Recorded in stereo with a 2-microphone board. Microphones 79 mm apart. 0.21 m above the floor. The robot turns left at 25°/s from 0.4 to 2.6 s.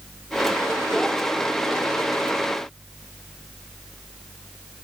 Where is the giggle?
I don't hear a giggle.